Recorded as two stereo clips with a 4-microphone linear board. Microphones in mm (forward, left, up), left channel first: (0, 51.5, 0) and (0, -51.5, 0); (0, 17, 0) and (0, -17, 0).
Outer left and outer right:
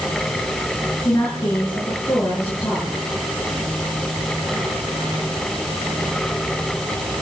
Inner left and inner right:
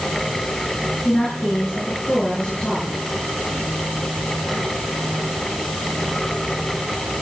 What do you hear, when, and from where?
1.1 s a woman speaking: 30° left (ahead or behind), 8.5 m